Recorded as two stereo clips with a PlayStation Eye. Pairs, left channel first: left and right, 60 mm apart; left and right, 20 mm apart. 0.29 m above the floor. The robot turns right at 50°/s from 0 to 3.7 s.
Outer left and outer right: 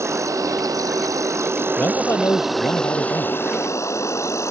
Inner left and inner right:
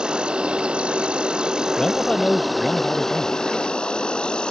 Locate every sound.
0.0 s an insect: 130° right; by 4.5 s 55° left
1.8 s a man speaking: 30° left; by 3.4 s 110° left